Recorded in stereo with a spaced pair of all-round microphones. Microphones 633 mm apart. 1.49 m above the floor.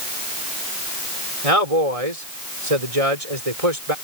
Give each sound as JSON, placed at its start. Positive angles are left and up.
{"t": 1.4, "sound": "a man speaking", "side_deg": -60}